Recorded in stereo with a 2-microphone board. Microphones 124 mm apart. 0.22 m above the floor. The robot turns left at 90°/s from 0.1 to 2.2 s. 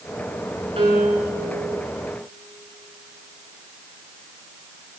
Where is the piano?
120° right, 3 m; by 1.3 s 175° right, 3 m.